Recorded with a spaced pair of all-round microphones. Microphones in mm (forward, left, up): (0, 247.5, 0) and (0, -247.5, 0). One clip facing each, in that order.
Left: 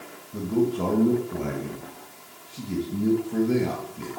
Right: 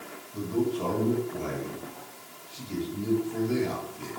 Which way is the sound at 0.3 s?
70° left (ahead or behind).